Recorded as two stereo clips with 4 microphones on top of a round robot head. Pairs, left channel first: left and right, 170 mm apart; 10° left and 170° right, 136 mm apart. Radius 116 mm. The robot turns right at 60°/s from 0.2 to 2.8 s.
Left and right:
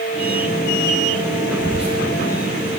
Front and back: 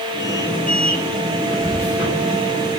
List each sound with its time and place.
1.6 s whispering: 60° right, 0.8 m; by 2.0 s 35° right, 0.8 m